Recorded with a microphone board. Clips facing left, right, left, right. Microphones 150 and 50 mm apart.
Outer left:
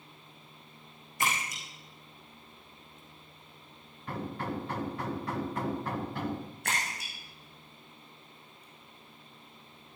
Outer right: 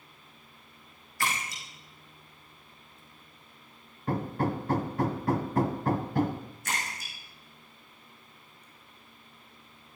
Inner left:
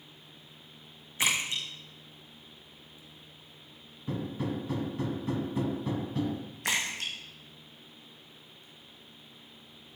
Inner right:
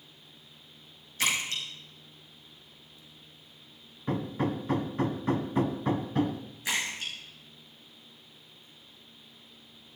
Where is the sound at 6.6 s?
65° left (ahead or behind), 5 m.